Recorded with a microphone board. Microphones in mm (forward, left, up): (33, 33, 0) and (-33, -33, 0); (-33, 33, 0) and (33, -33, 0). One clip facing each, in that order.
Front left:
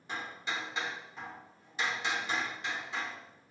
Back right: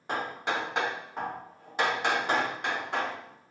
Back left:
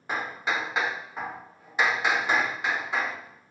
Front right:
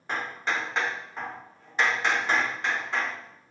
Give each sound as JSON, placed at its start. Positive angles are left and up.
{"t": 0.1, "sound": "hammering", "azimuth_deg": -145, "distance_m": 0.5}